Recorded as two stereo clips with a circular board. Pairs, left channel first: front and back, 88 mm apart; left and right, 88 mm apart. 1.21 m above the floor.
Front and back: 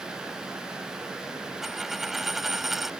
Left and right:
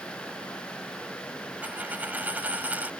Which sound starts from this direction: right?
A dropped coin, at 1.6 s.